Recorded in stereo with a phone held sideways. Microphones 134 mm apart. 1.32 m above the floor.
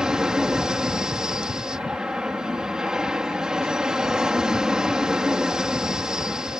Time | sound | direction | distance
0.0 | an aircraft | 5° right (ahead or behind) | ?